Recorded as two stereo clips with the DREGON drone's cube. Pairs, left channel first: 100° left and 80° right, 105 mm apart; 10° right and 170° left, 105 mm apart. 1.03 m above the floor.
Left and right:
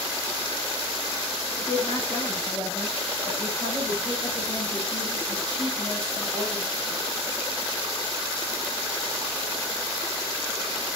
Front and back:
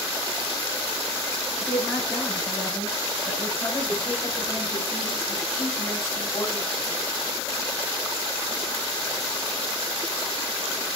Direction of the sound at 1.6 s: 65° left.